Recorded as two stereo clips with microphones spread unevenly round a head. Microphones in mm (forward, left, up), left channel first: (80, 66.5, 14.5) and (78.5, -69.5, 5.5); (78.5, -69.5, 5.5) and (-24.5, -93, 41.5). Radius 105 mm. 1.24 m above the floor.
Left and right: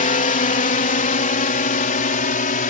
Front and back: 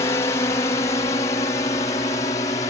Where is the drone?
70° left; by 2.7 s 75° left.